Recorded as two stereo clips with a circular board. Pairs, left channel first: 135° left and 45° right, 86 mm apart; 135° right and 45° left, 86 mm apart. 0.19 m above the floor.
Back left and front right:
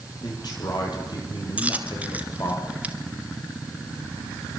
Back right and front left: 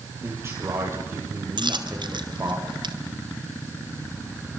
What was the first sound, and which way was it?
A man speaking, 100° left.